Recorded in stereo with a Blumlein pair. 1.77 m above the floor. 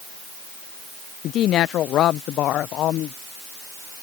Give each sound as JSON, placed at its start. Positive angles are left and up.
{"t": 1.2, "sound": "a woman speaking", "azimuth_deg": 30}